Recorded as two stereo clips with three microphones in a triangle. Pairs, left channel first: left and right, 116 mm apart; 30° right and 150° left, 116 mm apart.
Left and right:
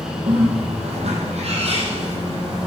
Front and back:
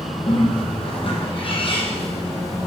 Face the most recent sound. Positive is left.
turn(degrees=-65)